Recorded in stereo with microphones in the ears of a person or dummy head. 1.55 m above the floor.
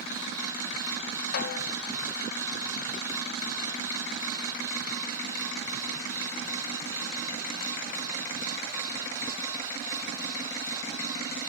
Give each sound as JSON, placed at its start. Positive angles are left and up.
{"t": 1.3, "sound": "a snare drum", "side_deg": 55, "distance_m": 0.7}